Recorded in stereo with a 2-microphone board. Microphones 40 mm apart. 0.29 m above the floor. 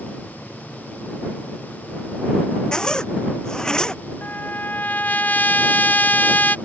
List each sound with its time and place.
2.7 s a zipper: 15° left (ahead or behind)
4.2 s a trumpet: 50° left (ahead or behind)